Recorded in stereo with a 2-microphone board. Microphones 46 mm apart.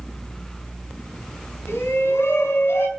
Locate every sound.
1.7 s a shout: 70° left (ahead or behind), 4 m